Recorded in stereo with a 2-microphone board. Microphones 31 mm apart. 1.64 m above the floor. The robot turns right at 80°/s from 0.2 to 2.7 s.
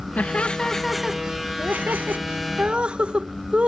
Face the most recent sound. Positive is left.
turn(degrees=-35)  # may be behind; listen again after turning